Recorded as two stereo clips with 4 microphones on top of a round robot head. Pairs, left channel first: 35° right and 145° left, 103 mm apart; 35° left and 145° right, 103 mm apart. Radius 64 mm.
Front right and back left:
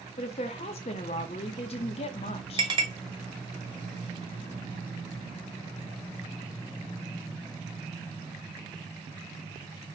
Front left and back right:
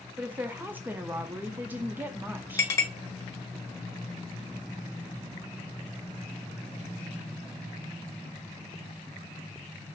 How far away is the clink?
About 1.2 m.